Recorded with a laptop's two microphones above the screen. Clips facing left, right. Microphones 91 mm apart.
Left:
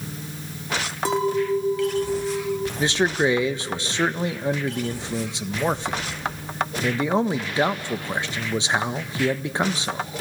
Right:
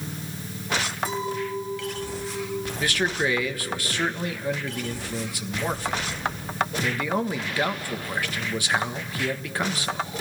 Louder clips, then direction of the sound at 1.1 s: Left 11 dB; 70° left (ahead or behind).